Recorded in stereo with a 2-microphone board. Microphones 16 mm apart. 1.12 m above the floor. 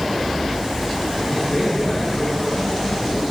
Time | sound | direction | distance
1.3 | a man speaking | 60° left (ahead or behind) | 5 m